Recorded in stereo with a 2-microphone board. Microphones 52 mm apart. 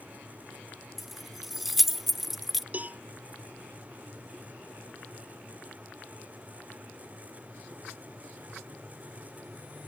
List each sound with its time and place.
1.0 s keys jangling: 5° right (ahead or behind)
2.7 s a cowbell: 30° right (ahead or behind)